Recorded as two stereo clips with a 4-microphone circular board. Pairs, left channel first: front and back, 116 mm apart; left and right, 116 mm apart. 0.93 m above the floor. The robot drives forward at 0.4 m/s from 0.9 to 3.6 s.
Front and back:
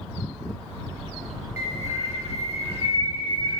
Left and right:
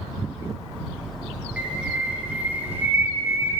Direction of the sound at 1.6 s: 10° right.